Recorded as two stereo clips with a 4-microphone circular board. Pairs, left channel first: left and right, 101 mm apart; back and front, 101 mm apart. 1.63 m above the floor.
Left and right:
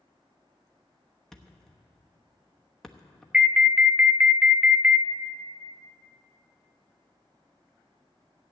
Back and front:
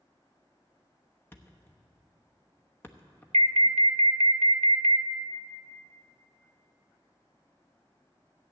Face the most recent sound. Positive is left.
turn(degrees=-15)